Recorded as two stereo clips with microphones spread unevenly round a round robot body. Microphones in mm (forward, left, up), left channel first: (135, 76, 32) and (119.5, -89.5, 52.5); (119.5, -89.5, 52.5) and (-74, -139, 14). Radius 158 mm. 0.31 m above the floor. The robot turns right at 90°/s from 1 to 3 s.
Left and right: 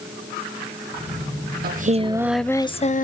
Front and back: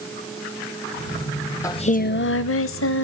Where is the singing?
65° right, 0.8 m; by 3.0 s 55° left, 0.8 m.